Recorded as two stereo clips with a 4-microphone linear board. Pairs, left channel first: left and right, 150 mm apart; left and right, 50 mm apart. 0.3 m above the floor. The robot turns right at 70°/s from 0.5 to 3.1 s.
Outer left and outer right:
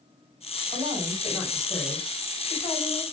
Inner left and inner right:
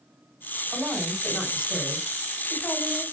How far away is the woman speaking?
About 1.5 m.